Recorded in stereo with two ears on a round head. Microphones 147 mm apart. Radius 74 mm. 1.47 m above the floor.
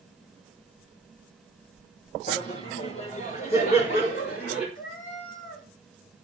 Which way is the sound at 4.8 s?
60° left (ahead or behind).